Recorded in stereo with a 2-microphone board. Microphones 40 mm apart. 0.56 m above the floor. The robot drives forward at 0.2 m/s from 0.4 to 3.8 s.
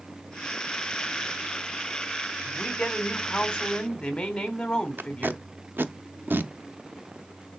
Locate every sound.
2.5 s a woman speaking: 20° left (ahead or behind), 1.2 m
5.0 s tape being pulled: 60° right (ahead or behind), 0.5 m